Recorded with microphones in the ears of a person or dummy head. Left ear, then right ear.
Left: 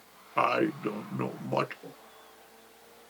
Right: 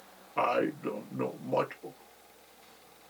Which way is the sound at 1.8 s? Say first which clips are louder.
Right 1 dB; 10° left (ahead or behind).